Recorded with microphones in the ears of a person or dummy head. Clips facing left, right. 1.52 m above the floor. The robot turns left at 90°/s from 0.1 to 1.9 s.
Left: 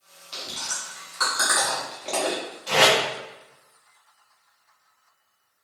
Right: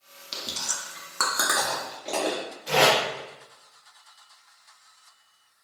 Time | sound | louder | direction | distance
0.3 | chewing | even | 35° right (ahead or behind) | 0.6 m
2.7 | tape being pulled | left 1 dB | 10° right (ahead or behind) | 1.0 m